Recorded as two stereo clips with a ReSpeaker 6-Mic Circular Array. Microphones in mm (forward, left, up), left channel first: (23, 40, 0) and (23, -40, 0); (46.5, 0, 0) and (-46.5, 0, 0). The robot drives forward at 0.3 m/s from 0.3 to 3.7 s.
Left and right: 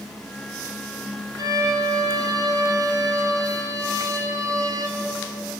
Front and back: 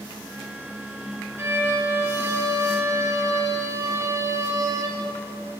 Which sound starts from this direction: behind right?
A violin, at 1.4 s.